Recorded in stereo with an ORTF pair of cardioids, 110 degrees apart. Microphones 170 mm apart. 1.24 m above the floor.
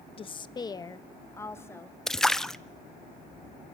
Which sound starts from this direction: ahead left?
A woman speaking, at 0.2 s.